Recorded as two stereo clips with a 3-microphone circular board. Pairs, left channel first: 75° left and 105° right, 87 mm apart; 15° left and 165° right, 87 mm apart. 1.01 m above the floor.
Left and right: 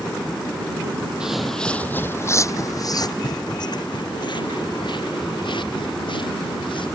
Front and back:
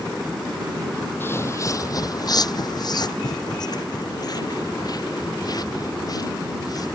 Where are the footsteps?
30° right; by 6.9 s 60° left.